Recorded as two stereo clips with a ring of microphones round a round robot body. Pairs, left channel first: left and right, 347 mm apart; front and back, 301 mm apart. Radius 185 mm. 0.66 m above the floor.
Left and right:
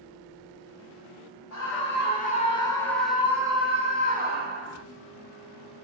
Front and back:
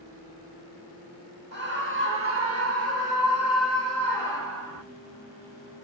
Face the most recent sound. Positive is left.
turn(degrees=-140)